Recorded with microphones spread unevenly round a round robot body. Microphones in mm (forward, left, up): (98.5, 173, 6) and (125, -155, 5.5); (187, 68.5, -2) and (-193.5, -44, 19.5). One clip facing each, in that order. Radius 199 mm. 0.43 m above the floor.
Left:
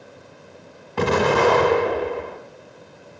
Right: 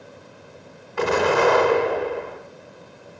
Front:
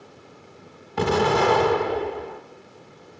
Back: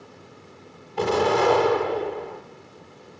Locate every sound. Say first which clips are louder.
1.0 s an explosion: left 1 dB, even; 45° left, 1.1 m